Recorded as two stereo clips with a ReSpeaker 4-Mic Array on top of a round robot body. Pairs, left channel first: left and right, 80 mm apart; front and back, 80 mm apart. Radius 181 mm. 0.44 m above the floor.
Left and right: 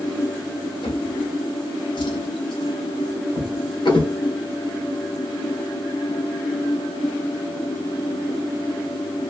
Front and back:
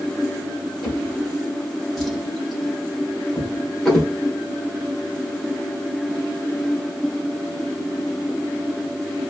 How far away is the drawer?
About 1.4 m.